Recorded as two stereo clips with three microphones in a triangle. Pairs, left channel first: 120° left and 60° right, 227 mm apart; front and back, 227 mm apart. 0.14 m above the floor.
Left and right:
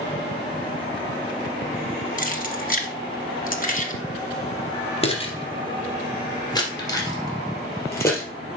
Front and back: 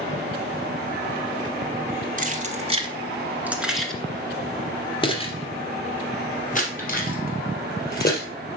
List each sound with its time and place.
2.2 s keys jangling: 150° left, 1.3 m; by 8.3 s 40° left, 3 m